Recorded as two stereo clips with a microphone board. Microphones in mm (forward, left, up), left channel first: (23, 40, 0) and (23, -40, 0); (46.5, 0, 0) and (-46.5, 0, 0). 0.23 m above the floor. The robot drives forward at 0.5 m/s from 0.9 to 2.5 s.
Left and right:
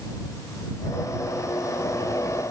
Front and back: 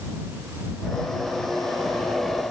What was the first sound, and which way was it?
Only background noise.